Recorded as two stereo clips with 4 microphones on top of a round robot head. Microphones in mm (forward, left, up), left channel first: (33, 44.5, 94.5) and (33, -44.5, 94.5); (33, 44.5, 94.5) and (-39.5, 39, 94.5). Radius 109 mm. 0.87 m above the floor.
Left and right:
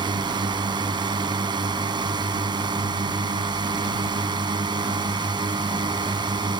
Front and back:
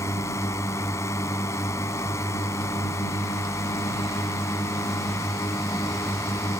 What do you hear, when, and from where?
0.0 s a drone: 50° right